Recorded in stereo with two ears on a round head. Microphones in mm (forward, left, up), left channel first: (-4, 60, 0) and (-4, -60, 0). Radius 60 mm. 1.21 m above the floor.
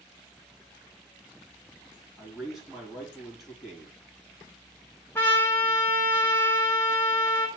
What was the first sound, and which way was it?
A man speaking, 5° right (ahead or behind).